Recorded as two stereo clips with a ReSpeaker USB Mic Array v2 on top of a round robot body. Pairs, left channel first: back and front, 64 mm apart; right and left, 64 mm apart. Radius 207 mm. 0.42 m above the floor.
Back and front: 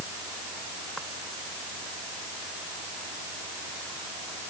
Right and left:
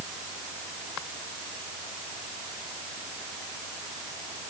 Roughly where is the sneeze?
No sneeze in this recording.